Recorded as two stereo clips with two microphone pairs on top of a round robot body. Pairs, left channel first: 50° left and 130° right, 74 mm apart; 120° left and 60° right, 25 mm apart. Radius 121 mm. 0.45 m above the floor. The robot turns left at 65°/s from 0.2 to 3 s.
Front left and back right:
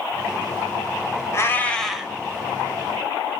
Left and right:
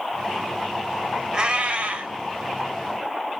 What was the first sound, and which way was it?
A cat meowing, straight ahead.